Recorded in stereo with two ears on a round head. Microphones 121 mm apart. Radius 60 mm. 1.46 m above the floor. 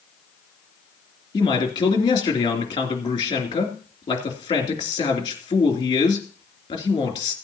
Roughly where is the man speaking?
Left.